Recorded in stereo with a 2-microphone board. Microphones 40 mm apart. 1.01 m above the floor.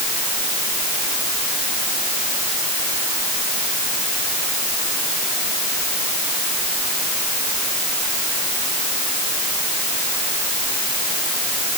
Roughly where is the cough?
I don't hear a cough.